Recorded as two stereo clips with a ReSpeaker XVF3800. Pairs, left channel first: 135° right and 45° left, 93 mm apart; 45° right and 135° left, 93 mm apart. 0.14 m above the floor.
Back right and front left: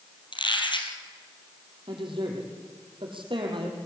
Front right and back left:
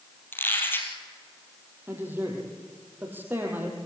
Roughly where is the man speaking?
Left.